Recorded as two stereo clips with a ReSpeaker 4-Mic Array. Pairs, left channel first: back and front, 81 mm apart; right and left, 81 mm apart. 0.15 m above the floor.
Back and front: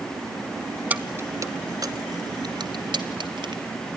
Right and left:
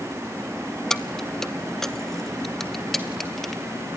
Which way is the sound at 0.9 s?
20° right.